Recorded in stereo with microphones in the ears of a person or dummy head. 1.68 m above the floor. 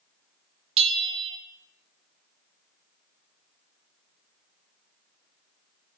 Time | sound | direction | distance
0.8 | a bell | 30° right (ahead or behind) | 1.3 m